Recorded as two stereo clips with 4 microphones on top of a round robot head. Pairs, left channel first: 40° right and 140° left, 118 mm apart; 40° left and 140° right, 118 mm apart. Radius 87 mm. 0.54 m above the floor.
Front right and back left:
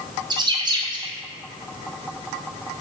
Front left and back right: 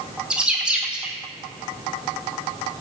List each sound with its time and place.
0.3 s a bird: 145° left, 1.2 m